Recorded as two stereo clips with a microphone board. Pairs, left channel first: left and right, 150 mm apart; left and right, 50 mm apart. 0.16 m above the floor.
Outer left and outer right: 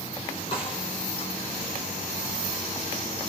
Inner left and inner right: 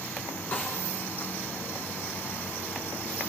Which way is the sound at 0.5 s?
40° left (ahead or behind).